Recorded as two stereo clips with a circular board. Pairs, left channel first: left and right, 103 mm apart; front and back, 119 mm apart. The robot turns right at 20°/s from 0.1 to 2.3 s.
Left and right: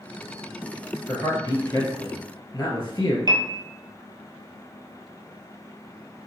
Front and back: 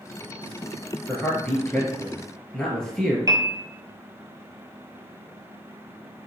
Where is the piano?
125° right, 0.6 m.